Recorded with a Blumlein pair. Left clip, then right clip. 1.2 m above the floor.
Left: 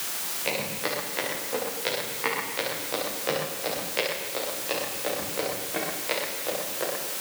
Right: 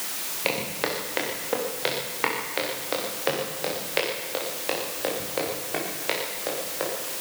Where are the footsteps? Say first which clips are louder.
Right 2 dB; 60° right, 9 m; by 6.9 s 70° right, 13 m.